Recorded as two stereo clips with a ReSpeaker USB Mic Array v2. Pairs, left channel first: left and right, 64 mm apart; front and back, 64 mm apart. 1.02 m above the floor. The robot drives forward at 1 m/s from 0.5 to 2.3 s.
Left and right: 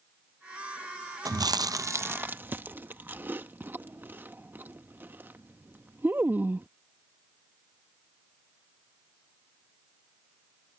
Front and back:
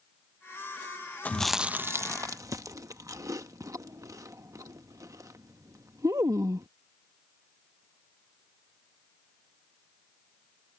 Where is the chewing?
65° right; by 6.7 s 150° right.